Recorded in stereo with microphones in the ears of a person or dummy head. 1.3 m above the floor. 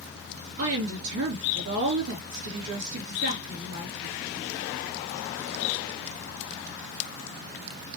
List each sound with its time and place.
0.6 s a woman speaking: 75° right (ahead or behind), 3.5 m